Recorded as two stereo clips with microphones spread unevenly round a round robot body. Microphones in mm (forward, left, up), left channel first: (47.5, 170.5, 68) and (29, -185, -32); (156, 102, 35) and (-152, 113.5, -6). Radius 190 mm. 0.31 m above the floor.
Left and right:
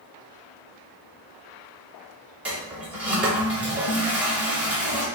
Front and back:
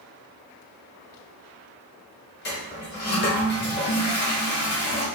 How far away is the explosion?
No explosion in this recording.